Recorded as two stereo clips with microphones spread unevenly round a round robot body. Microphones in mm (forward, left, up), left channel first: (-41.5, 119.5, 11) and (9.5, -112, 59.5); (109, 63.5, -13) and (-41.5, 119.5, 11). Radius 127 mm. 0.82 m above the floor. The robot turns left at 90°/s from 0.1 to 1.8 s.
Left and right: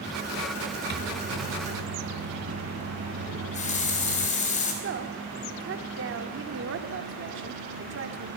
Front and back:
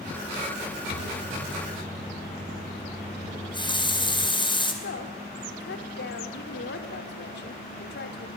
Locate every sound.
0.9 s a microwave: 25° right, 1.9 m; by 4.3 s 105° right, 1.9 m
3.3 s a running tap: 40° left, 3.5 m
4.8 s a woman speaking: 35° right, 2.0 m